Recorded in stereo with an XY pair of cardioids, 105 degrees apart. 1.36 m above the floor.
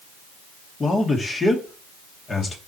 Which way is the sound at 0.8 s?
30° left.